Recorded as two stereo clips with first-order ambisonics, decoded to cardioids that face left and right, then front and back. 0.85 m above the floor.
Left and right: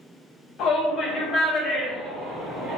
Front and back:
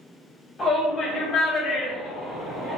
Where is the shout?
65° left, 1.1 m; by 2.8 s 85° right, 1.2 m.